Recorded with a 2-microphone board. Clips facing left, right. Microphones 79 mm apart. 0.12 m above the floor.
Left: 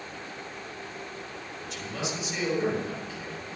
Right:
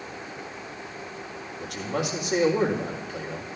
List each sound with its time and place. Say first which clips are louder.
1.6 s a man speaking: right 6 dB; 70° right (ahead or behind), 5 m